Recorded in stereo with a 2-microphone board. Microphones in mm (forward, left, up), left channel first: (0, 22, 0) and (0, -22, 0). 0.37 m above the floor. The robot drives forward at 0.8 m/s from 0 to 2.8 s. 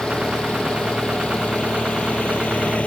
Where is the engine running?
20° left (ahead or behind); by 2.9 s 30° left (ahead or behind).